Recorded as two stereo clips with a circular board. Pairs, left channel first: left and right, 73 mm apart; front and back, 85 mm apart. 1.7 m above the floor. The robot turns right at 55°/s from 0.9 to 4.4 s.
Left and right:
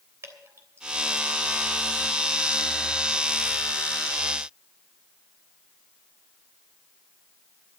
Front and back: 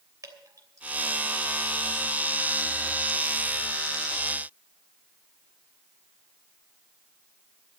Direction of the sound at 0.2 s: 135° right.